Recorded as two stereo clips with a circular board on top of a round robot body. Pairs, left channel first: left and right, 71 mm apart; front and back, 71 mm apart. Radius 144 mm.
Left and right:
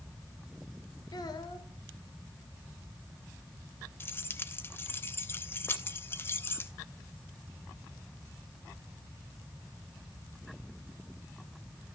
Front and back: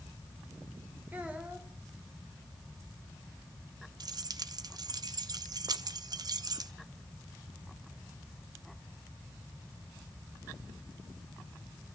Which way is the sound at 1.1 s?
110° left.